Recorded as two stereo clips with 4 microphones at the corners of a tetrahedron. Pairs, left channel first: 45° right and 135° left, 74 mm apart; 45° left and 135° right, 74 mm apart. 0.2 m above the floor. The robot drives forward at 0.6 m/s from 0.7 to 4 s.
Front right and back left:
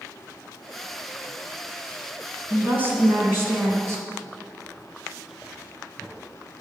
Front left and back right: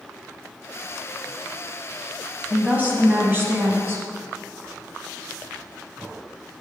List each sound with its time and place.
2.5 s a woman speaking: 175° left, 1.4 m